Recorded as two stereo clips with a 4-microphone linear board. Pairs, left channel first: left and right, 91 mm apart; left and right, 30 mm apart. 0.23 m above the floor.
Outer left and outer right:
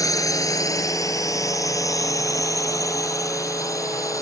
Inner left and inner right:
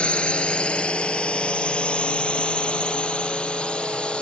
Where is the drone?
40° left (ahead or behind); by 4.2 s 35° left (ahead or behind).